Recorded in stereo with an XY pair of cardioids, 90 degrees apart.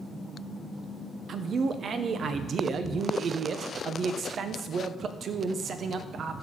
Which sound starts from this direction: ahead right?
A man speaking, at 1.3 s.